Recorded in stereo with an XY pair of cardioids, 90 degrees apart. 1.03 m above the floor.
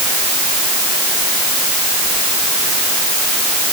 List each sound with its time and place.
Only background noise.